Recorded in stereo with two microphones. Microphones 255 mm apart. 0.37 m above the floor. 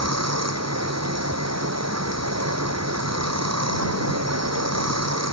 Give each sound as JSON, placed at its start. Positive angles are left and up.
{"t": 0.0, "sound": "running water", "side_deg": -85}